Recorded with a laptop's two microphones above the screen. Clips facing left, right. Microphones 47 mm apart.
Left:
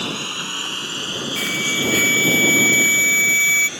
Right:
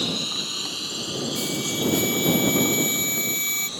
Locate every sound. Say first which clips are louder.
0.0 s a lawn mower: left 3 dB; 50° left (ahead or behind); by 3.8 s 55° left (ahead or behind)
1.4 s an alarm: left 9 dB; 75° left (ahead or behind)